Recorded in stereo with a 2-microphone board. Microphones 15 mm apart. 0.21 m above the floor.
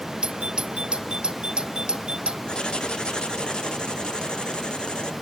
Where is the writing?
80° left.